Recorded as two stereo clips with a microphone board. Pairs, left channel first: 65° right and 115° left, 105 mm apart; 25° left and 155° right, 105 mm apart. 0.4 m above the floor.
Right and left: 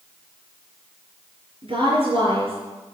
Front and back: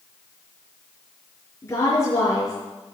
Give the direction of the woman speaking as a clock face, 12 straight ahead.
9 o'clock.